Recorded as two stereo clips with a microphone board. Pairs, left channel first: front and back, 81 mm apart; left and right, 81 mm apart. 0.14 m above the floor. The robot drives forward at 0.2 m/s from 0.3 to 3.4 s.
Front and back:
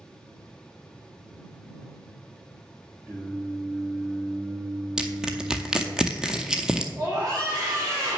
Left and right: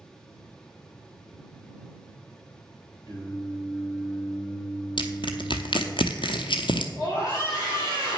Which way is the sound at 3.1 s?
120° left.